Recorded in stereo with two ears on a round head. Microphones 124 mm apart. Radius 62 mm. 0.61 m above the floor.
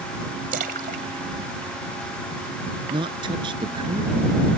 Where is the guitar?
I don't hear a guitar.